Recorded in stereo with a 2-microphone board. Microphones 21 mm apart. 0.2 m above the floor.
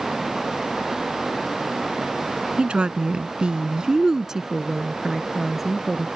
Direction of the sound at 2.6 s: 55° right (ahead or behind).